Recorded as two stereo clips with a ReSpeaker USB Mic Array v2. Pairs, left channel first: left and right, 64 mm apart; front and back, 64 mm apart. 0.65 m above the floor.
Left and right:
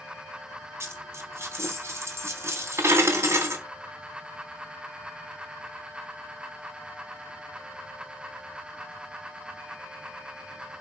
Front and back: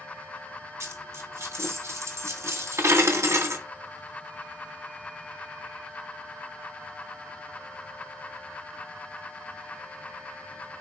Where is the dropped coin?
135° right, 1.7 m.